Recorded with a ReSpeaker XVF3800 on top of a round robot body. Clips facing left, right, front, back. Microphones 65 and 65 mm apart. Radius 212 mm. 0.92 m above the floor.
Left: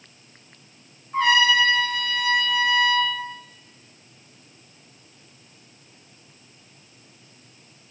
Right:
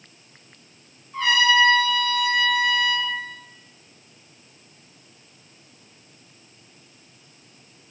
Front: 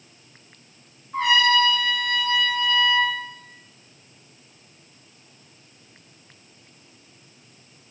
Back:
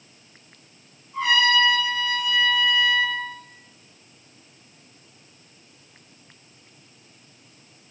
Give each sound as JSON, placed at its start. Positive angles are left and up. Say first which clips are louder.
{"t": 1.1, "sound": "a trumpet", "louder": "even, front 1 dB", "azimuth_deg": 40, "distance_m": 3.5}